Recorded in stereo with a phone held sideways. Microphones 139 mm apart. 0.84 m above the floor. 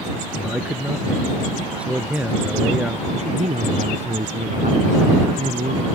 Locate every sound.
0.4 s a man speaking: 10° right (ahead or behind)
3.1 s a man speaking: 55° right (ahead or behind)